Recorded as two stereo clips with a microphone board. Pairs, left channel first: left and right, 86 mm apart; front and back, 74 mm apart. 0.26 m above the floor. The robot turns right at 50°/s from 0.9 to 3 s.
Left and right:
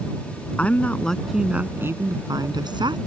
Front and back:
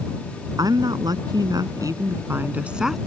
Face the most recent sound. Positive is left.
turn(degrees=-90)